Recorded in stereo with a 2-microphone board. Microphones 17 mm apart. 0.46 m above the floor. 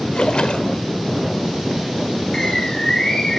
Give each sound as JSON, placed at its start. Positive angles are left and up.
{"t": 0.1, "sound": "a splash", "side_deg": 65, "distance_m": 0.7}
{"t": 2.3, "sound": "a bird", "side_deg": 30, "distance_m": 2.5}